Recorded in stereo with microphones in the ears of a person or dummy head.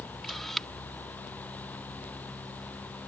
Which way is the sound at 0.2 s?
Centre (ahead or behind).